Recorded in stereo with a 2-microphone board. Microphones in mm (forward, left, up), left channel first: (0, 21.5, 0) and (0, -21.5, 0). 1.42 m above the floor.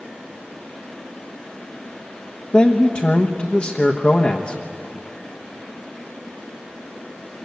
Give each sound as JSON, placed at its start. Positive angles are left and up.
{"t": 2.5, "sound": "a man speaking", "side_deg": 25, "distance_m": 1.2}